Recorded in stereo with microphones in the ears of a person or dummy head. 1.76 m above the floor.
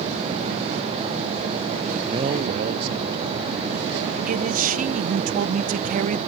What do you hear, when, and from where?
2.0 s a man speaking: 15° right (ahead or behind); by 4.2 s 65° right (ahead or behind)
4.3 s a man speaking: 40° right (ahead or behind)